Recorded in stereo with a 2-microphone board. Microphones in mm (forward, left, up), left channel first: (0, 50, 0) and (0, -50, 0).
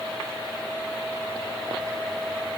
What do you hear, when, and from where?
Only background noise.